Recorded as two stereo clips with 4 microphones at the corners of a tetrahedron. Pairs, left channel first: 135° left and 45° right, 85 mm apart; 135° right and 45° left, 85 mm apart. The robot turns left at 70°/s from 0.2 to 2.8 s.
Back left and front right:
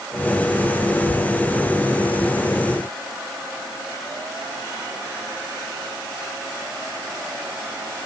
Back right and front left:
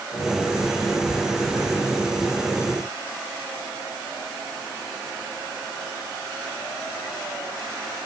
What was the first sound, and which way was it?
Only background noise.